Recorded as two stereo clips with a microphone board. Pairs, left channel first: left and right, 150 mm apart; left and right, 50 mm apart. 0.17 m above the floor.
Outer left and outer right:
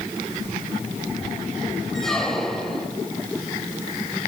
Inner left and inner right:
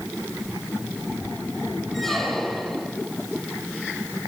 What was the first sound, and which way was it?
A squeak, 5° left (ahead or behind).